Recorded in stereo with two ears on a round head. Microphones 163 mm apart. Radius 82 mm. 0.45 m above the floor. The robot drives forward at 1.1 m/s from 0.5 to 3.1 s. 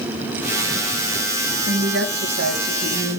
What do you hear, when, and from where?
1.7 s a woman speaking: 70° right (ahead or behind), 3.5 m; by 3.2 s 60° right (ahead or behind), 3.5 m